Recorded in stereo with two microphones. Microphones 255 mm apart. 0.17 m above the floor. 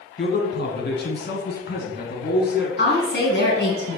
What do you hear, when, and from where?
0.2 s a man speaking: 40° left (ahead or behind), 1.3 m
2.8 s a woman speaking: 45° left (ahead or behind), 1.8 m